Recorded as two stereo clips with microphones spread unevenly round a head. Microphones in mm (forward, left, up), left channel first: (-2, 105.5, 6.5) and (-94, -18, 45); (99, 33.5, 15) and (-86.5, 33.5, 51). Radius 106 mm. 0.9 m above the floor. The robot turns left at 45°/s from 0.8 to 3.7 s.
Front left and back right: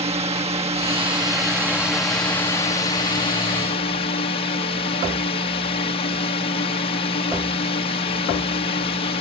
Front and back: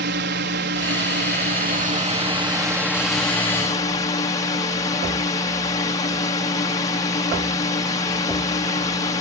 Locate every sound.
0.0 s a drone: 175° right; by 9.2 s 55° left